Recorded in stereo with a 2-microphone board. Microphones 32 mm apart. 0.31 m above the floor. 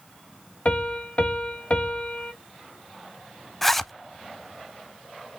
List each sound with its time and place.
0.7 s a piano: 40° left (ahead or behind), 1.7 m
3.6 s a zipper: 10° left (ahead or behind), 0.5 m